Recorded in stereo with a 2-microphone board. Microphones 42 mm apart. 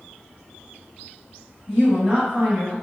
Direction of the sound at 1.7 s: 15° right (ahead or behind).